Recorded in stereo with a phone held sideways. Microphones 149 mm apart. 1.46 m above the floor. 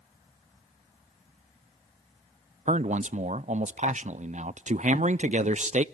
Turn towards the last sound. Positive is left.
turn(degrees=-55)  # may be behind; listen again after turning